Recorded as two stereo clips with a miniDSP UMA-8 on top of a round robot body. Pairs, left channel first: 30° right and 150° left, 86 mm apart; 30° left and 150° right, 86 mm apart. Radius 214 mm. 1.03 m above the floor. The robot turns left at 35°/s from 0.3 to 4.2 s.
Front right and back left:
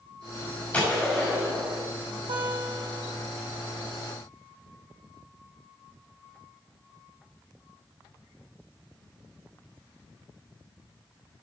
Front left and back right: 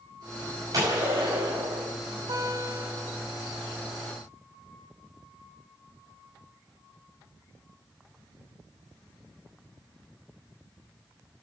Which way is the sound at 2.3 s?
175° left.